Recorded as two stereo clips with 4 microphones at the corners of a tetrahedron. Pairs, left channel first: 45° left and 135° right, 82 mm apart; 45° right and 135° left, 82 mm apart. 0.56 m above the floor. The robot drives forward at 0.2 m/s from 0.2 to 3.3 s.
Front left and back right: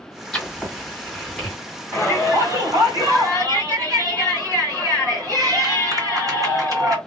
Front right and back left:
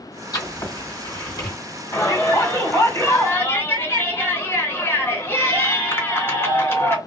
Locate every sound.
0.3 s writing: 35° right, 1.9 m; by 1.6 s 40° right, 1.7 m
1.9 s a shout: 95° right, 2 m; by 7.0 s 105° right, 2 m